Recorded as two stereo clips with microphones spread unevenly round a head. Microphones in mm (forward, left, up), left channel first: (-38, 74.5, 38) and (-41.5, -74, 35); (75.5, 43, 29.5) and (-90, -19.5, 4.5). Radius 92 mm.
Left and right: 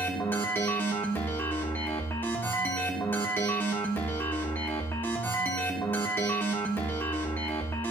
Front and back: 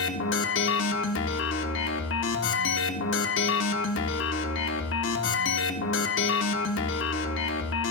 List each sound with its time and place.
0.0 s a machine running: 10° left, 1.3 m